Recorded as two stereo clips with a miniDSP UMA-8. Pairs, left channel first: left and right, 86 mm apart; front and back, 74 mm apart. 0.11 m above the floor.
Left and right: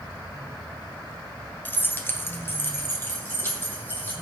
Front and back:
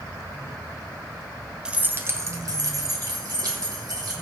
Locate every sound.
1.6 s keys jangling: 115° left, 0.8 m; by 4.1 s 155° left, 3 m